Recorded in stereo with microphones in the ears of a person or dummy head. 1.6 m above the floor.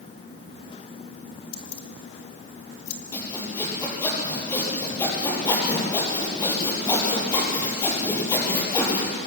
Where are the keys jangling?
35° left (ahead or behind), 1.9 m; by 3.0 s 45° left (ahead or behind), 2.5 m.